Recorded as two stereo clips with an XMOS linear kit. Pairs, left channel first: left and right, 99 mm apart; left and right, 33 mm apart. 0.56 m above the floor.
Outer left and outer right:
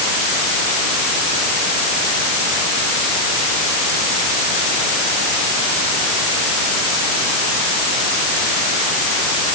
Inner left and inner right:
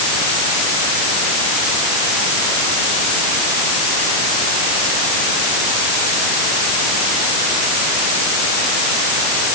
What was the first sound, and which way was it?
Only background noise.